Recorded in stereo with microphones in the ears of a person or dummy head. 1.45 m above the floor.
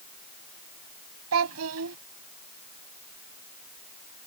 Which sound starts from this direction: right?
A child speaking, at 1.3 s.